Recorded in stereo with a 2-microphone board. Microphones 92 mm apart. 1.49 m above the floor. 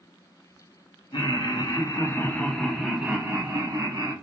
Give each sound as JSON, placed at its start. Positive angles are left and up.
{"t": 1.1, "sound": "laughter", "side_deg": 60, "distance_m": 0.9}